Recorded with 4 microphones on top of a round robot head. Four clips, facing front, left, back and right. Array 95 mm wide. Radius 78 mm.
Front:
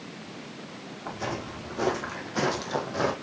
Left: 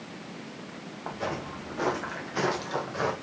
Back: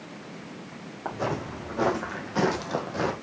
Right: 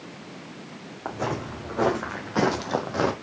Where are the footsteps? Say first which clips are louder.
Right 4 dB, back 4 dB; 125° right, 2.5 m; by 3.1 s 85° right, 1.6 m.